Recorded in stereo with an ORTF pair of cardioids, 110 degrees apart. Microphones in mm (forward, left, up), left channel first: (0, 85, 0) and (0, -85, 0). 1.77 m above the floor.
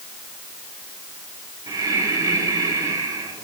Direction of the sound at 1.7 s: 20° right.